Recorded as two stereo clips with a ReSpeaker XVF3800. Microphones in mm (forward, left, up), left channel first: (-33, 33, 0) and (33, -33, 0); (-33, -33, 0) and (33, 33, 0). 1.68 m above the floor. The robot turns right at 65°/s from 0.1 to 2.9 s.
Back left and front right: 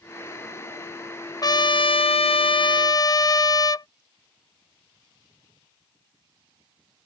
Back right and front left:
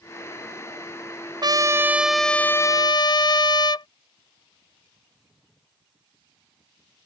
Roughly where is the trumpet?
Left.